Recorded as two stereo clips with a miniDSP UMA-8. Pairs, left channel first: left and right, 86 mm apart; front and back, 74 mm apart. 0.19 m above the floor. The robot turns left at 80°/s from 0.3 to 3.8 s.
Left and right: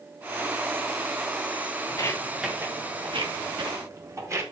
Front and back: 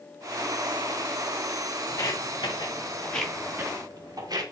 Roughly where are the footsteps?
Ahead left.